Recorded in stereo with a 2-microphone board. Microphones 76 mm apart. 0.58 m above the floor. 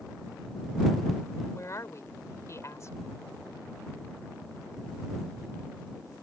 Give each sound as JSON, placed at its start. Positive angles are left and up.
{"t": 1.5, "sound": "a woman speaking", "side_deg": 40}